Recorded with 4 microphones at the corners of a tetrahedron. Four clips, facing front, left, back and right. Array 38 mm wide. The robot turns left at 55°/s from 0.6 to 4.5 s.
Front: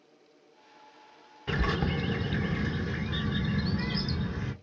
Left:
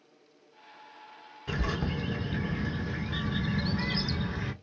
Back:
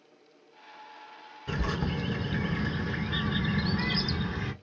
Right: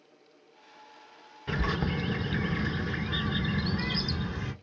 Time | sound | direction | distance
1.5 | a bird | 40° right | 0.7 m